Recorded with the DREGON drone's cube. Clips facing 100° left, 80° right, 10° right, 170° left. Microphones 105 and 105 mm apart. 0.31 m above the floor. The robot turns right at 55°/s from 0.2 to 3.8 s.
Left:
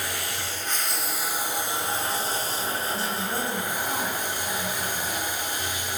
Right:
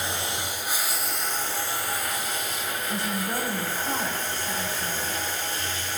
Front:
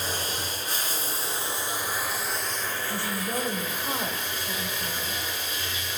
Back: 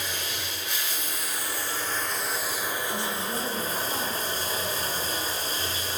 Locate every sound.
0.0 s running water: 35° right, 0.7 m; by 6.0 s 165° left, 0.7 m
2.9 s a woman speaking: 45° right, 1.1 m; by 5.2 s 5° left, 1.1 m